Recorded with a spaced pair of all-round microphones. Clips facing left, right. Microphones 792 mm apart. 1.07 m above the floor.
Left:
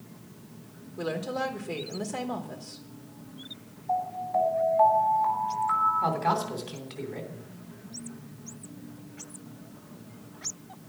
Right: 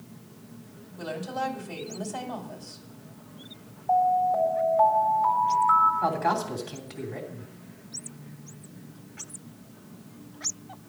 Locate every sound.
1.0 s a woman speaking: 75° left (ahead or behind), 2 m
3.9 s an alarm: 75° right (ahead or behind), 4.5 m
6.0 s a man speaking: 70° right (ahead or behind), 3 m